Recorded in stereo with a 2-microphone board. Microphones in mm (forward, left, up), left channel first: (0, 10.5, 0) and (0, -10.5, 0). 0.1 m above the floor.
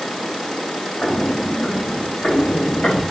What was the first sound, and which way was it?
Footsteps, 60° left (ahead or behind).